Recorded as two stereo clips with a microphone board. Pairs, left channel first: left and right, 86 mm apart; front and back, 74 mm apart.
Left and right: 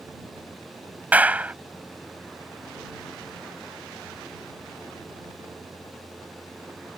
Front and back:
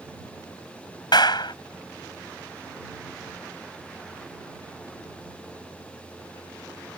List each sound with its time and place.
1.1 s a clap: 20° right